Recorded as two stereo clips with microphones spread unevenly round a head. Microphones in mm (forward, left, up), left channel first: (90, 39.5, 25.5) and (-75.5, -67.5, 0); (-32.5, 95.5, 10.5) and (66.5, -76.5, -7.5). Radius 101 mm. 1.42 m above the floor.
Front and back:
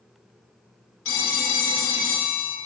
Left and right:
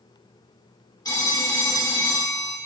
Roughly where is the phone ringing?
Ahead left.